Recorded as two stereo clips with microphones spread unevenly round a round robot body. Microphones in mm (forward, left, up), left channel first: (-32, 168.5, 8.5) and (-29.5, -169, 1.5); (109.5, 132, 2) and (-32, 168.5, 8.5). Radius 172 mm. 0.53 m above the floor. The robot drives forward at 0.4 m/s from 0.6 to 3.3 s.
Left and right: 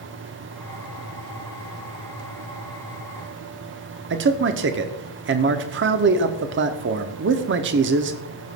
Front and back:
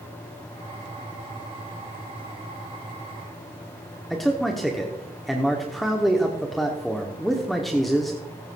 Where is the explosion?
No explosion in this recording.